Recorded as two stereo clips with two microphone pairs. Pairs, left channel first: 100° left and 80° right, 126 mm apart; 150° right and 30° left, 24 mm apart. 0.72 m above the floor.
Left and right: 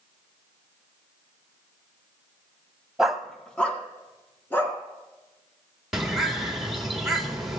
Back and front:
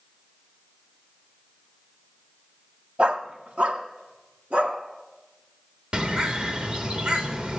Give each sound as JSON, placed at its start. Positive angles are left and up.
{"t": 3.0, "sound": "a dog barking", "azimuth_deg": 5, "distance_m": 1.0}
{"t": 5.9, "sound": "a bird", "azimuth_deg": 5, "distance_m": 2.0}